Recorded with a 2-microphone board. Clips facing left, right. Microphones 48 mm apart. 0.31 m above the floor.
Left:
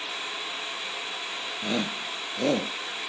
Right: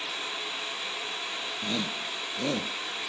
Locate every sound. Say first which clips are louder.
1.6 s a shout: left 4 dB; 30° left (ahead or behind)